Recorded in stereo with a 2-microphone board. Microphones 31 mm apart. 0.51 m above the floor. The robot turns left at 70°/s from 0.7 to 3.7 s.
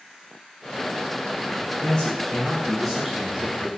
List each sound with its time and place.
1.8 s a man speaking: 70° left, 1.4 m; by 3.7 s 65° right, 1.4 m